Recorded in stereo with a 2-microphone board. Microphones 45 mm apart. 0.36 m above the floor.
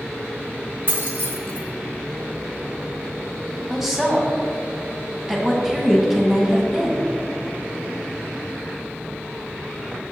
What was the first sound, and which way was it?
Keys jangling, 50° right (ahead or behind).